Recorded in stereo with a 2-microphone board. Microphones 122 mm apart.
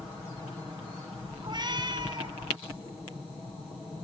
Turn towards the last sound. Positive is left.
turn(degrees=-40)  # may be behind; listen again after turning